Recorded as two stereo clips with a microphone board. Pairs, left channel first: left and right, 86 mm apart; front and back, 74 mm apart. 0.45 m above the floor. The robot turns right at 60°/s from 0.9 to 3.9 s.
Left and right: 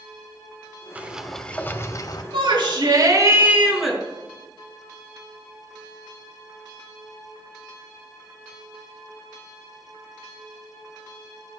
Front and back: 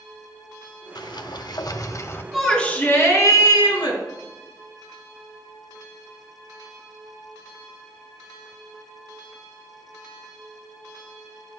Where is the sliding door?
20° right, 1.0 m; by 2.2 s 55° left, 1.0 m.